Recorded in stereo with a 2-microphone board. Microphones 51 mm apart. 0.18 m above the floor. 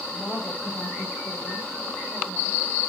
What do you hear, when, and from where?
0.1 s a woman speaking: 10° left (ahead or behind), 7.5 m; by 2.6 s 30° left (ahead or behind), 8 m